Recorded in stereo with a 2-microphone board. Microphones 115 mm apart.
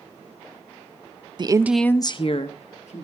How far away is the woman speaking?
About 0.6 m.